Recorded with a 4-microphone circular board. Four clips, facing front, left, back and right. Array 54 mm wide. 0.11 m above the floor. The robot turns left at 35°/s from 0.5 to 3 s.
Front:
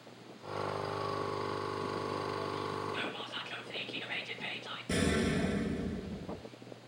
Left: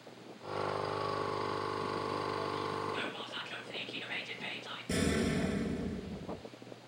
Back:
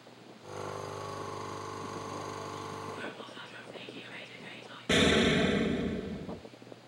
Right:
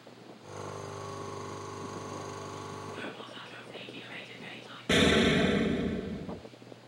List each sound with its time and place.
2.9 s whispering: 25° left, 3 m
4.9 s an explosion: 130° right, 0.5 m